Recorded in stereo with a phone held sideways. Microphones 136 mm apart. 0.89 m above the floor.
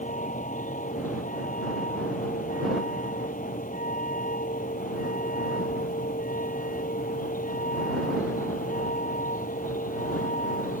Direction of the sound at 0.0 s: 75° left (ahead or behind).